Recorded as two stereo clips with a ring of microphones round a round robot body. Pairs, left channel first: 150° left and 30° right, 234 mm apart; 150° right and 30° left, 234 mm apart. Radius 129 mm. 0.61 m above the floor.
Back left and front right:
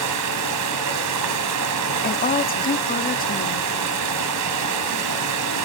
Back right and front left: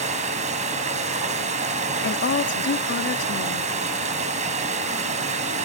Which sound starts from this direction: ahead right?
Running water, at 0.0 s.